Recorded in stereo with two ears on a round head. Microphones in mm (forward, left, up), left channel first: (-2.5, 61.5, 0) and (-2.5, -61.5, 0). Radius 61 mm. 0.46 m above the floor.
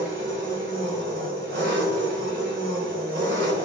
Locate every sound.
0.0 s an engine running: 70° right (ahead or behind), 1.2 m